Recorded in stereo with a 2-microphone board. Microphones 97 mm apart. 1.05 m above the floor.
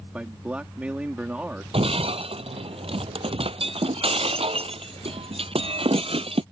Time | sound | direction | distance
0.1 | a man speaking | 15° right (ahead or behind) | ?
1.7 | breaking glass | 80° right | ?